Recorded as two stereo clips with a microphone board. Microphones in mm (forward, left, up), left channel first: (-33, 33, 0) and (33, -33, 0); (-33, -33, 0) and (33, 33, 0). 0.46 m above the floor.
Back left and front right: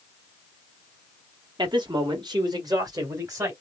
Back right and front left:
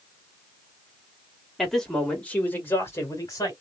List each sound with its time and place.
1.6 s a man speaking: 45° right, 1.9 m; by 3.5 s 95° right, 1.9 m